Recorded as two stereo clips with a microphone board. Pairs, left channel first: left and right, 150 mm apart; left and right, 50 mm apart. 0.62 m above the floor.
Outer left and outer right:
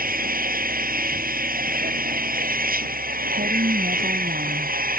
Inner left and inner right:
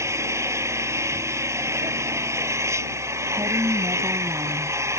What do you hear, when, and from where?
0.0 s an engine running: 70° right (ahead or behind)
3.3 s a woman speaking: 75° right (ahead or behind)